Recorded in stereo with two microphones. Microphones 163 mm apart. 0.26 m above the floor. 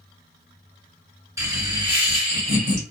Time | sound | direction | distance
1.4 | laughter | 20° right (ahead or behind) | 1.6 m